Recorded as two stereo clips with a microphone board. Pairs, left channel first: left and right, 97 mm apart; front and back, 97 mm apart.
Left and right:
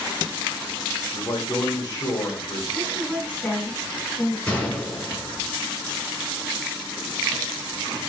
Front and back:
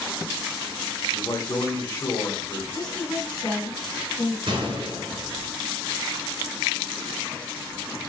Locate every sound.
1.1 s a man speaking: 60° left, 1.5 m
2.7 s a woman speaking: 15° left, 2 m
4.5 s a gunshot: 165° left, 3 m